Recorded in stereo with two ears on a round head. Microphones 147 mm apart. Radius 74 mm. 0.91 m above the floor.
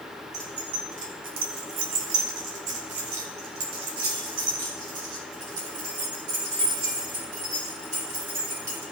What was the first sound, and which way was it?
Keys jangling, 25° right (ahead or behind).